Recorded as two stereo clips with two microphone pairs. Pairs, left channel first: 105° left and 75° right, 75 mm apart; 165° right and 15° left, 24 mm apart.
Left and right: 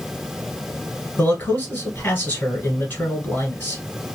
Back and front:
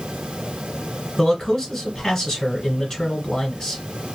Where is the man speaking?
140° left, 1.7 m.